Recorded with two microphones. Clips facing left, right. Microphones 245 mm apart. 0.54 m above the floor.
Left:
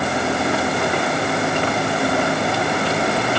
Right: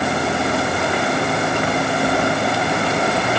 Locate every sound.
Only background noise.